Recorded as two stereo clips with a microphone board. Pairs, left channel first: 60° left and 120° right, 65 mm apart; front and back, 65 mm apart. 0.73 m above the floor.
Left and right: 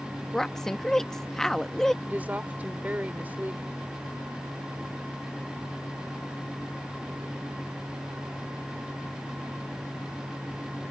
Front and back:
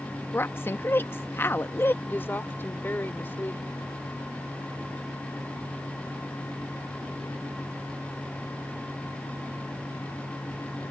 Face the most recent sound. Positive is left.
turn(degrees=-55)